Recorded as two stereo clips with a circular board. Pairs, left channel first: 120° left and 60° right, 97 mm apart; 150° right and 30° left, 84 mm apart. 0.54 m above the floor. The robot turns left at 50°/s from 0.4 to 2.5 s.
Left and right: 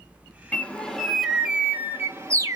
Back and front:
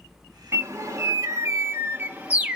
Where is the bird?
60° left, 0.6 m; by 2.6 s 40° right, 0.6 m.